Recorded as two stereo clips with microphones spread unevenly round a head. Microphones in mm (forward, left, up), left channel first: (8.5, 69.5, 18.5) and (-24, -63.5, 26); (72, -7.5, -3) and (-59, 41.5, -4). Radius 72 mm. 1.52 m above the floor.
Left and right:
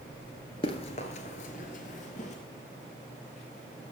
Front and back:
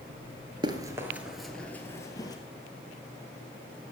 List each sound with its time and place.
0.6 s running footsteps: 115° left, 1.9 m; by 2.4 s 35° left, 2.5 m